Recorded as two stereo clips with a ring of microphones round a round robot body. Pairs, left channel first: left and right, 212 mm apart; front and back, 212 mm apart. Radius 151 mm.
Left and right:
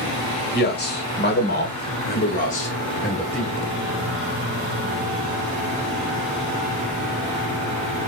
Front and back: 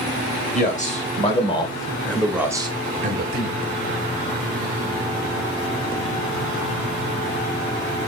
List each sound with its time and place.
0.5 s a man speaking: 55° left, 1.9 m; by 3.6 s 175° right, 1.1 m